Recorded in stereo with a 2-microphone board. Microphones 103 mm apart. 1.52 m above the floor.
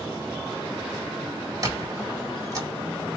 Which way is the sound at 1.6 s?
35° right (ahead or behind).